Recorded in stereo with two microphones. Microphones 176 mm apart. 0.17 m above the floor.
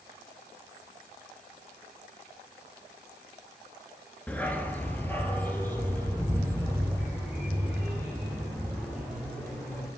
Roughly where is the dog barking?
Centre.